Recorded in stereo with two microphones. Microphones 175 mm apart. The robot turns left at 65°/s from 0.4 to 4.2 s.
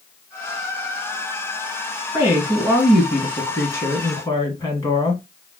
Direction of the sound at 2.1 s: 15° right (ahead or behind).